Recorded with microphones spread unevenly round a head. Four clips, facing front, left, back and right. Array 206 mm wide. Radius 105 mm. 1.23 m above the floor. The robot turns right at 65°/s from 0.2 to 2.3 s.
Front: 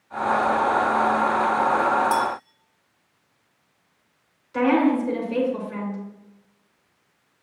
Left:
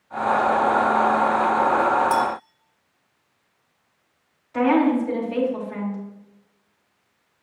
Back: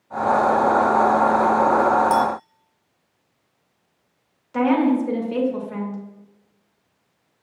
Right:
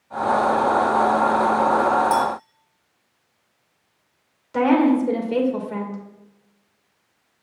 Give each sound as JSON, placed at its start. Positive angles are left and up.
{"t": 2.1, "sound": "a clink", "azimuth_deg": 175, "distance_m": 1.6}
{"t": 4.5, "sound": "a woman speaking", "azimuth_deg": -105, "distance_m": 2.0}